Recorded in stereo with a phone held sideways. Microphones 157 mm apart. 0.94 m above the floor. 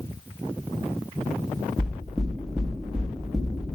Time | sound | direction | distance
1.8 | knocking | 5° right (ahead or behind) | 1.1 m